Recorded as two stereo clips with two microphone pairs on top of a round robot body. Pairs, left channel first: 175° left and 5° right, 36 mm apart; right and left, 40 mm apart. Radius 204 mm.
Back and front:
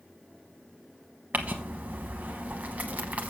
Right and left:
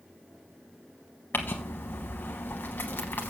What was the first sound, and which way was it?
Crumpling, 50° right.